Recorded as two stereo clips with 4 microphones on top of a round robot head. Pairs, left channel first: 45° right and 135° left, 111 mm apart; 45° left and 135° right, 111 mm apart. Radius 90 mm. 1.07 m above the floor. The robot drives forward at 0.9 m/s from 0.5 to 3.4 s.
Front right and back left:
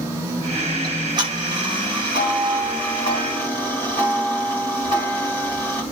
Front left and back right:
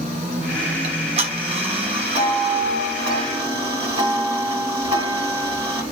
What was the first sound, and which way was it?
Ticking, 170° right.